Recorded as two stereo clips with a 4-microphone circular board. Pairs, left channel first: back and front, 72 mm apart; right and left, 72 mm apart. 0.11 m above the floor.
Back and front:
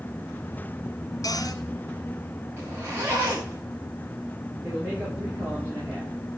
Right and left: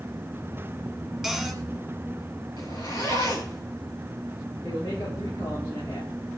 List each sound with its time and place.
1.2 s a cupboard door: straight behind, 2.5 m
2.6 s a zipper: 60° right, 6 m
4.6 s a man speaking: 70° right, 10 m